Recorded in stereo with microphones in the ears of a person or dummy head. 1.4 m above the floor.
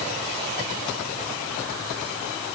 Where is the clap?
No clap in this recording.